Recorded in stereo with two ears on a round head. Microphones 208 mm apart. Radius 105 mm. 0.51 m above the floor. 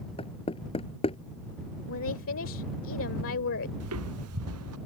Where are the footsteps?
65° right (ahead or behind).